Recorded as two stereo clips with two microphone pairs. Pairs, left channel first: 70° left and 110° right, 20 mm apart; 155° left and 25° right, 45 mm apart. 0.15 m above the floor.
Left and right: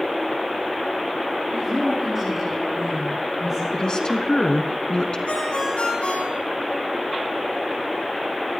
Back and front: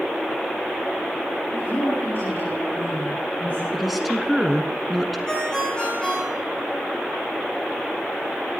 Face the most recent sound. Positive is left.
turn(degrees=80)